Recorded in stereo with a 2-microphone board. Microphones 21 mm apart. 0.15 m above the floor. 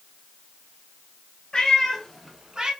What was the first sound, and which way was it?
A cat meowing, 35° left (ahead or behind).